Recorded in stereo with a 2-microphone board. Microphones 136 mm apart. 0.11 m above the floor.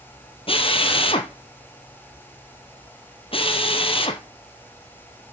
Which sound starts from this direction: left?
A drill, at 0.5 s.